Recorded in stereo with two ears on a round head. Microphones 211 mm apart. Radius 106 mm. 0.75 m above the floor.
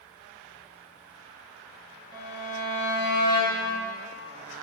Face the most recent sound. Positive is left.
turn(degrees=-15)  # may be behind; listen again after turning